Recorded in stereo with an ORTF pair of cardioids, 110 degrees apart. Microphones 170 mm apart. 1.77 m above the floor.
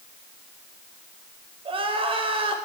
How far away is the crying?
About 5 m.